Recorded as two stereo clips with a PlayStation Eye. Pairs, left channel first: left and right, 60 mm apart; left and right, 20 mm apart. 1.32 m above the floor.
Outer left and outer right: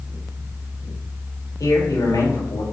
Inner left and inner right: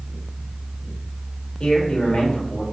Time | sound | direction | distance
1.6 | a man speaking | 80° left | 2.5 m